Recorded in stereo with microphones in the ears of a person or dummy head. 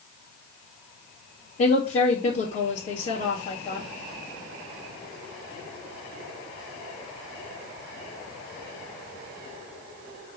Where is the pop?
No pop in this recording.